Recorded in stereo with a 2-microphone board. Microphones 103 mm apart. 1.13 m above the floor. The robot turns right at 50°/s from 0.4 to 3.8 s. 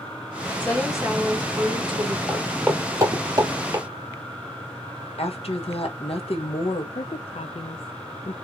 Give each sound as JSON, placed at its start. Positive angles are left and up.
{"t": 0.6, "sound": "a woman speaking", "azimuth_deg": 165, "distance_m": 2.5}
{"t": 2.3, "sound": "footsteps", "side_deg": 0, "distance_m": 1.6}
{"t": 5.2, "sound": "a woman speaking", "side_deg": 70, "distance_m": 1.2}
{"t": 7.0, "sound": "a woman speaking", "side_deg": 65, "distance_m": 0.5}